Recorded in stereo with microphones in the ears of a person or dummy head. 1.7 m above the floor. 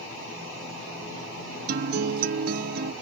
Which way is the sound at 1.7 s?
55° right (ahead or behind).